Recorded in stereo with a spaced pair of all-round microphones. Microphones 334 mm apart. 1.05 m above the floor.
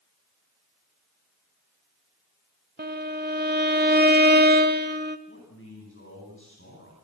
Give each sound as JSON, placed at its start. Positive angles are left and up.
{"t": 2.8, "sound": "a violin", "side_deg": -30, "distance_m": 1.0}
{"t": 5.3, "sound": "a man speaking", "side_deg": 35, "distance_m": 10.0}